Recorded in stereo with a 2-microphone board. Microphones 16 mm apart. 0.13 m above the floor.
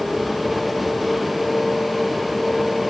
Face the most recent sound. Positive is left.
No sound to turn to.